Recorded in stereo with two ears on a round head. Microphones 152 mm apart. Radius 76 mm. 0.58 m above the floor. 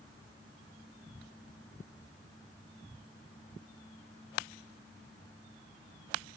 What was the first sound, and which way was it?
Only background noise.